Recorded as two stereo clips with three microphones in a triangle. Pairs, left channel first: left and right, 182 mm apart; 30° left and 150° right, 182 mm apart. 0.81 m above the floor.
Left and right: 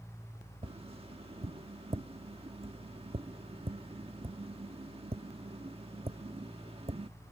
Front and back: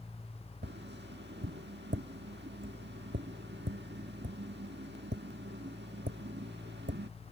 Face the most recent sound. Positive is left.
turn(degrees=-150)